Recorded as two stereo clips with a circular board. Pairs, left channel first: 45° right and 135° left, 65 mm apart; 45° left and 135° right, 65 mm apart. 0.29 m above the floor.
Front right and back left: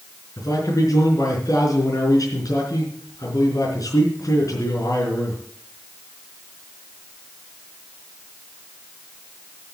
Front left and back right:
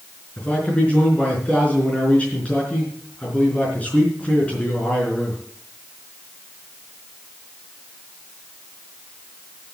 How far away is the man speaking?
About 4.5 m.